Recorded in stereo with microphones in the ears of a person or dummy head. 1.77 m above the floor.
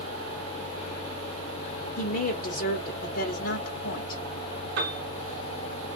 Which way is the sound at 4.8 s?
70° right (ahead or behind).